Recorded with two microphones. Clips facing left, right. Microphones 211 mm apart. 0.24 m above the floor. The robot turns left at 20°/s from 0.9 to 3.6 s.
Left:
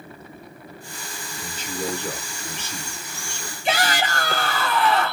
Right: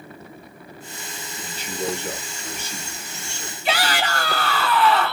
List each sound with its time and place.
1.4 s a man speaking: 55° left, 2.5 m; by 3.5 s 15° left, 2.5 m
3.6 s a shout: 25° left (ahead or behind), 1.8 m